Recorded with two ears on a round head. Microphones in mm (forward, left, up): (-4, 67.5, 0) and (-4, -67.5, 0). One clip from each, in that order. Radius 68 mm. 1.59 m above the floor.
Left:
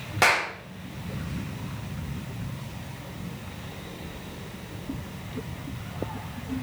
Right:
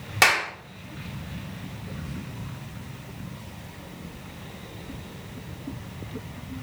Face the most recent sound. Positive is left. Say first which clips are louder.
# right 2 dB
turn(degrees=-45)  # may be behind; listen again after turning